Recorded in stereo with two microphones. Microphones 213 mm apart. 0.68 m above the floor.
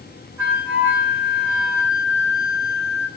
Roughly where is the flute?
Centre.